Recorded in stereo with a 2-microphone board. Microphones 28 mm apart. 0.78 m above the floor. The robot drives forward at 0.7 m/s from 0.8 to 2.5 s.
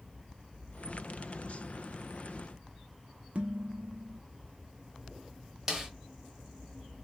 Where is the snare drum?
15° right (ahead or behind), 1.0 m.